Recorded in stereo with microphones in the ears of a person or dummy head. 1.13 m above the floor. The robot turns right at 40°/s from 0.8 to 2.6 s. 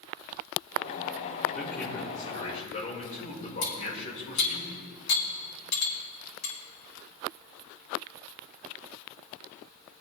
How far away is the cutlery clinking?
About 5 m.